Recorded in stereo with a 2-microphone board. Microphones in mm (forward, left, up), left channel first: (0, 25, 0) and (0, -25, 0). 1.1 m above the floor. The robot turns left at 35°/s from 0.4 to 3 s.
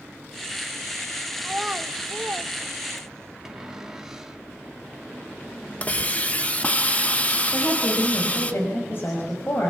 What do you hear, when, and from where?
1.4 s a child speaking: 5° right (ahead or behind), 1.2 m; by 3.3 s 60° right (ahead or behind), 1.2 m
3.5 s a cupboard door: 10° right (ahead or behind), 2.0 m
5.8 s a hiss: 30° left (ahead or behind), 1.3 m
7.5 s a woman speaking: 45° left (ahead or behind), 6 m